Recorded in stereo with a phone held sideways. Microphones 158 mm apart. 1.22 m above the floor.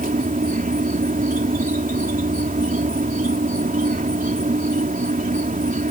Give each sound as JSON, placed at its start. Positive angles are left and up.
{"t": 0.0, "sound": "an insect", "side_deg": -60}